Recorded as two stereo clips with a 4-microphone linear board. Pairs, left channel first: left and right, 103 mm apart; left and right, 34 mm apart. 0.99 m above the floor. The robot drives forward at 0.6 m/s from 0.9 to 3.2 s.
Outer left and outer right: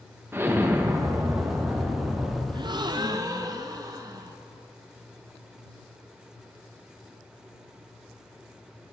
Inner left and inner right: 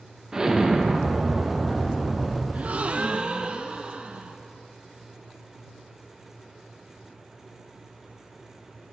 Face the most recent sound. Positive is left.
turn(degrees=-35)  # may be behind; listen again after turning